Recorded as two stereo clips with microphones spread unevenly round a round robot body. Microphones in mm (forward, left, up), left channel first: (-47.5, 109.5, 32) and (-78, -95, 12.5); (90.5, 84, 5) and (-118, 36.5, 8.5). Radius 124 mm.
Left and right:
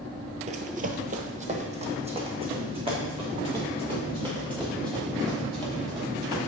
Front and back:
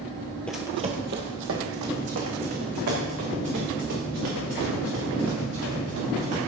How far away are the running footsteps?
About 0.9 m.